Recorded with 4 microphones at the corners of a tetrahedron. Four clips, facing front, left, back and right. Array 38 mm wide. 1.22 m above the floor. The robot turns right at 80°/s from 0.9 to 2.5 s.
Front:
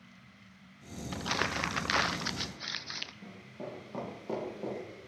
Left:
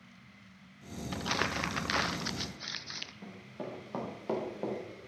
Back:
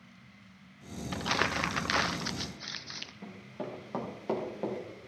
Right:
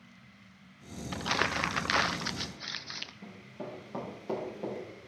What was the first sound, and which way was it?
Crumpling, 150° right.